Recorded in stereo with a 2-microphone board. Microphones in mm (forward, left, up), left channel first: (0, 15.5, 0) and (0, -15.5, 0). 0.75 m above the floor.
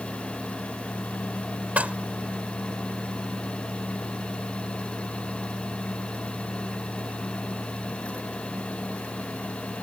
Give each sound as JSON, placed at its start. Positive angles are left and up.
{"t": 1.8, "sound": "dishes clattering", "side_deg": -50}